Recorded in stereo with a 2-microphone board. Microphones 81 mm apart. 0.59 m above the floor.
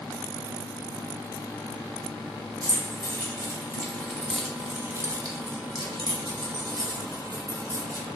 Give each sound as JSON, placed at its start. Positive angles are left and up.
{"t": 2.6, "sound": "keys jangling", "side_deg": 30, "distance_m": 1.6}